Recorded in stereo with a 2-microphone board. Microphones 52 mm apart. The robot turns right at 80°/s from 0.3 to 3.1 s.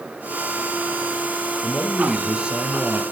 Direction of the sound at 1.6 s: 140° left.